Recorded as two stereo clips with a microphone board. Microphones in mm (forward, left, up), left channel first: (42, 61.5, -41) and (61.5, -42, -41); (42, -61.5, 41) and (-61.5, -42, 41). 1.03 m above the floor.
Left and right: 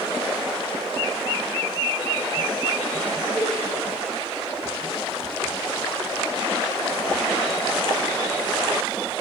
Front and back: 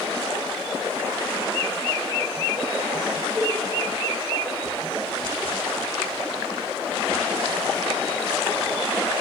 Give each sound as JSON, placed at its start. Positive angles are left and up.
{"t": 3.4, "sound": "a cowbell", "azimuth_deg": -20, "distance_m": 1.7}